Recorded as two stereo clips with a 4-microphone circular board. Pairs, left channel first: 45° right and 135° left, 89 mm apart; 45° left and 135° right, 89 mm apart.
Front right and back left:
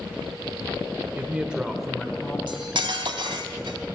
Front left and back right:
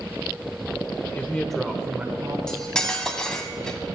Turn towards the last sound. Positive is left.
turn(degrees=125)